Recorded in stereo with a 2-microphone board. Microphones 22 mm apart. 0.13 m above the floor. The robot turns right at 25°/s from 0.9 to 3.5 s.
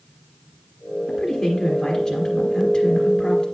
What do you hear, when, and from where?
1.1 s a woman speaking: 5° left (ahead or behind), 1.6 m; by 3.5 s 25° left (ahead or behind), 1.6 m